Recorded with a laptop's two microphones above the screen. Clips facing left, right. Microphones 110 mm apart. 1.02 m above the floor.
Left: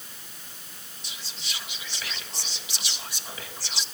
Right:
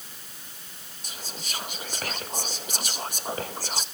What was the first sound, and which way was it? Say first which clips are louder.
Whispering: right 4 dB; 50° right (ahead or behind).